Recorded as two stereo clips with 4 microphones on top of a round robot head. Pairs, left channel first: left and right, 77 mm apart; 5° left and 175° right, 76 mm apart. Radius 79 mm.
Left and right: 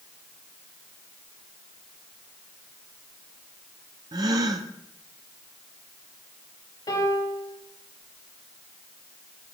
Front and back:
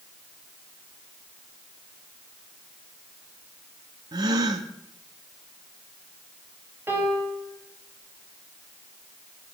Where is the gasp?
135° right, 0.8 m.